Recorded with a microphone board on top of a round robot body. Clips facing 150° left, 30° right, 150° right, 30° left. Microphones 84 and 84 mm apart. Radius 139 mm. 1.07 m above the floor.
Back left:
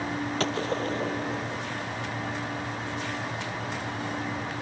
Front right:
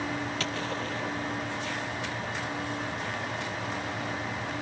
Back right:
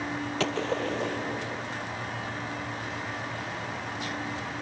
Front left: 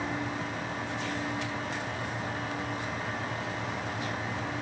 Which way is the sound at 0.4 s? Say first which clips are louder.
Back left 5 dB, back right 6 dB; 155° right.